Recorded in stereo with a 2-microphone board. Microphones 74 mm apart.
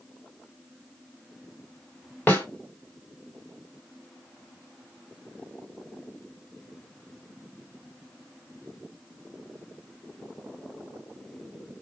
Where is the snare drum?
25° left (ahead or behind), 1.8 m.